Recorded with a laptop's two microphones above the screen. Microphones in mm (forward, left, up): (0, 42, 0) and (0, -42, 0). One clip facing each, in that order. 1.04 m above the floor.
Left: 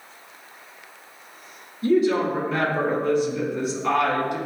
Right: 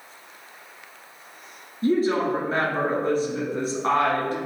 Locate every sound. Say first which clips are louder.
1.8 s a woman speaking: left 2 dB; 35° right (ahead or behind), 1.6 m